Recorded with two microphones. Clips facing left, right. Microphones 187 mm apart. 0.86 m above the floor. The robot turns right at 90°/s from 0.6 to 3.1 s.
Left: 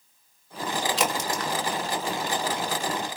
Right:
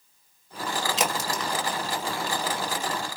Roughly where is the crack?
Right.